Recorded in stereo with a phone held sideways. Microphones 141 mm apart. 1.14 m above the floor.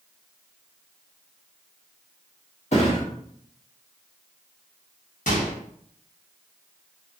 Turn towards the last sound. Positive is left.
turn(degrees=65)  # may be behind; listen again after turning